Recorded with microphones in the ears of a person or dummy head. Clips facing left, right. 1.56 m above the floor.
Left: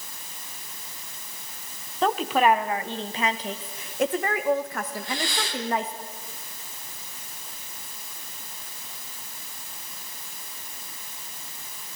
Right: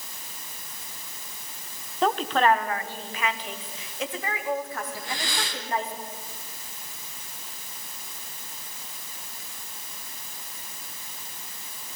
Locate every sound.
2.0 s a woman speaking: centre (ahead or behind), 1.1 m; by 5.9 s 60° left (ahead or behind), 2.5 m
4.9 s breathing: 65° right (ahead or behind), 3 m